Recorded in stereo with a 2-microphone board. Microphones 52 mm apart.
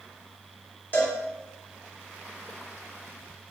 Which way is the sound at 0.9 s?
40° left (ahead or behind).